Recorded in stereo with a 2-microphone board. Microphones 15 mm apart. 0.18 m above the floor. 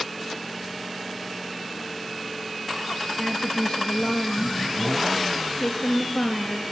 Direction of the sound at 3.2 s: 55° left (ahead or behind).